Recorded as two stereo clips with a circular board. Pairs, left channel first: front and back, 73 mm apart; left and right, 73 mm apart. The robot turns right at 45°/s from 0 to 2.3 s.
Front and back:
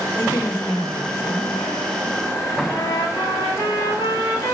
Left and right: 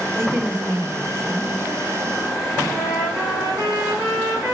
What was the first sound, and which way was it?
A woman speaking, 50° right.